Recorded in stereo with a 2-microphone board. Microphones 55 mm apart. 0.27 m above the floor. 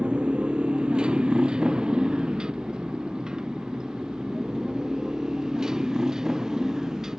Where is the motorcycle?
20° right (ahead or behind); by 7.2 s 10° right (ahead or behind).